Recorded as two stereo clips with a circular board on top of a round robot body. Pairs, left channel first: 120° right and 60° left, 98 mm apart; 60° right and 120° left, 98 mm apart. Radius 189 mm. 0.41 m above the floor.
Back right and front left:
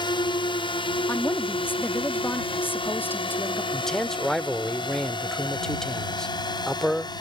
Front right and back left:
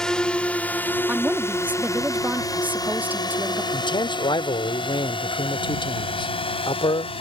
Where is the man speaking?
35° right.